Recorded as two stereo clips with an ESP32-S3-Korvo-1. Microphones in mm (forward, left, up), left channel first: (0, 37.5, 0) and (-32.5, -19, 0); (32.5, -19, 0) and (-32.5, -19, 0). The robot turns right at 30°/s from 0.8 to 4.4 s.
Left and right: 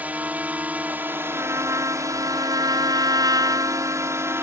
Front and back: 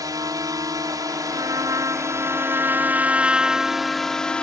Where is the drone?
175° left; by 4.4 s 75° right.